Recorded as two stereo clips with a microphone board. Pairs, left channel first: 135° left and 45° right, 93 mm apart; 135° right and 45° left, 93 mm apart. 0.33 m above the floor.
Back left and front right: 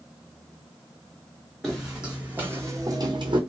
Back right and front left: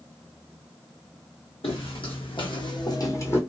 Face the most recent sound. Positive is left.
turn(degrees=-70)